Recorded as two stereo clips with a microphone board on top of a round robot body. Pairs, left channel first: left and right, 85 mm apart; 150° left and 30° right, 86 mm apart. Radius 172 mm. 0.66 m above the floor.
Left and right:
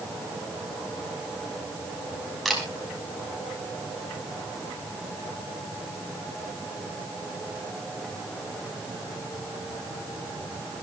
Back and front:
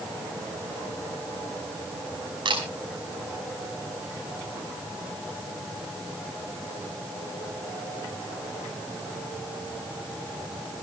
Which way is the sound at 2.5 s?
Straight ahead.